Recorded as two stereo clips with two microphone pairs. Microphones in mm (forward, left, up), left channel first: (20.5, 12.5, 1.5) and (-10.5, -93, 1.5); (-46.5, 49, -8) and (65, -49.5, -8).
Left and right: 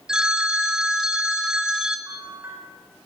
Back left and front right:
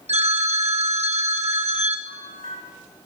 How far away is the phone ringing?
About 0.9 m.